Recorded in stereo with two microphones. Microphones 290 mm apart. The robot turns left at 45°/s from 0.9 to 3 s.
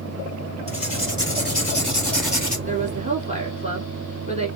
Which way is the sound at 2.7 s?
25° right (ahead or behind).